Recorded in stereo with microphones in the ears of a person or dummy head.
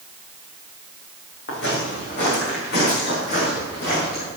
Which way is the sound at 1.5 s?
60° left (ahead or behind).